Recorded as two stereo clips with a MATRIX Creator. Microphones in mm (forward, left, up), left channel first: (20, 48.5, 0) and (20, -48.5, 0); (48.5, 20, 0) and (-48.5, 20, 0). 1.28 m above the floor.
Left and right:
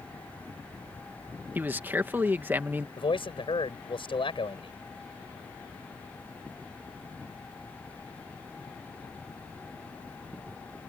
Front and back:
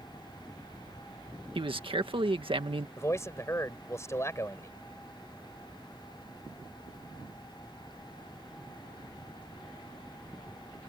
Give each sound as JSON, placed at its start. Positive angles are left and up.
{"t": 1.6, "sound": "a man speaking", "azimuth_deg": -160}
{"t": 3.0, "sound": "a man speaking", "azimuth_deg": 60}